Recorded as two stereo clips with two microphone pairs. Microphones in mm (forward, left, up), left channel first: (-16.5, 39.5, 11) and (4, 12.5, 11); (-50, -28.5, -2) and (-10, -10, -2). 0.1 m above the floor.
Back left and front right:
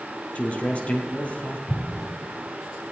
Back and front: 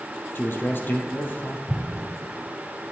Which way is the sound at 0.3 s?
175° left.